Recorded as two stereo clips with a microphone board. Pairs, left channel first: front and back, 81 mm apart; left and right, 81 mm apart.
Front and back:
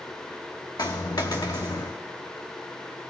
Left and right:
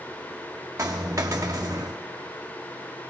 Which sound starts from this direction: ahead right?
A dropped coin, at 0.8 s.